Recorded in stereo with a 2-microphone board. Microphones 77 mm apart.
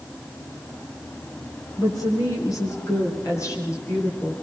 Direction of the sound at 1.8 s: 55° left (ahead or behind).